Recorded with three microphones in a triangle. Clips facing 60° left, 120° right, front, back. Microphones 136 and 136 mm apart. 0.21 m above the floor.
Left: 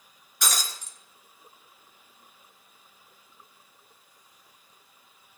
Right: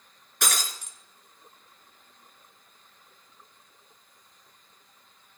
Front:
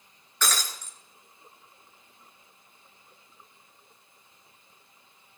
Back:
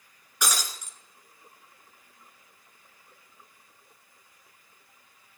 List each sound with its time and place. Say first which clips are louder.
0.4 s breaking glass: right 1 dB, even; 105° right, 1.5 m